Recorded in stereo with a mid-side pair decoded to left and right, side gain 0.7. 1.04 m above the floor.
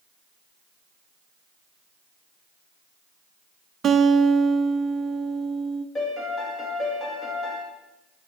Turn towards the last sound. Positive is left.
turn(degrees=15)